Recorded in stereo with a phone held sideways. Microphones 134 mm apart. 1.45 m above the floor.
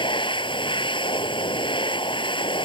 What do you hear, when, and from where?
0.0 s a machine running: 40° left (ahead or behind)